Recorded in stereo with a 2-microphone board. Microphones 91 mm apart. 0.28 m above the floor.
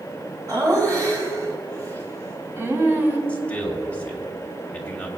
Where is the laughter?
45° right (ahead or behind), 4.5 m; by 3.2 s 25° right (ahead or behind), 2.5 m.